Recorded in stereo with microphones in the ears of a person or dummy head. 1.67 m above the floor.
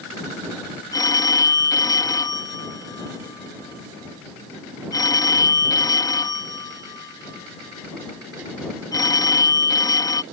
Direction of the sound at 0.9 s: 20° left (ahead or behind).